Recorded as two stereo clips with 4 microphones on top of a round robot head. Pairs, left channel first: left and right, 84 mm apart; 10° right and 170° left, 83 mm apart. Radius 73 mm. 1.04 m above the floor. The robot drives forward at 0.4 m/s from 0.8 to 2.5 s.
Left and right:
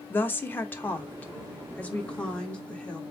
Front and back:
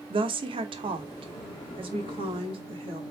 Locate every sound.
0.1 s a woman speaking: 160° left, 1.0 m; by 3.0 s 165° left, 1.6 m